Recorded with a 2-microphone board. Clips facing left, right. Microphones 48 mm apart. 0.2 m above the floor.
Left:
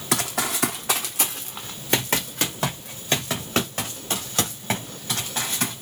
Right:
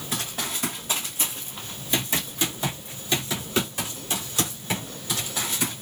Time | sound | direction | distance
0.1 | running footsteps | 80° left | 0.8 m